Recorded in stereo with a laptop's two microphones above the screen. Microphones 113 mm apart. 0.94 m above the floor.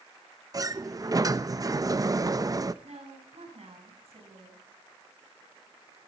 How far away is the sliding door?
About 0.5 m.